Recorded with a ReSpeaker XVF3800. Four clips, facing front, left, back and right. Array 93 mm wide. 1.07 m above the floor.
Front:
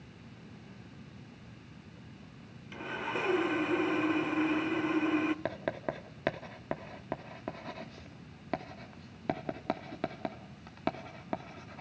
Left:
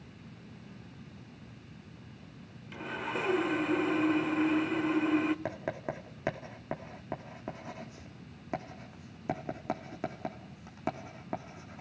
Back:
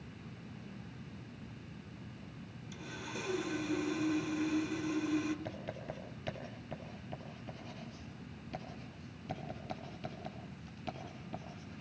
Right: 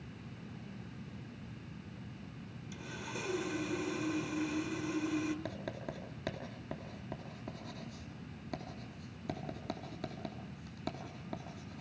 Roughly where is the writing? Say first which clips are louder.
Left 6 dB, front 8 dB; ahead left.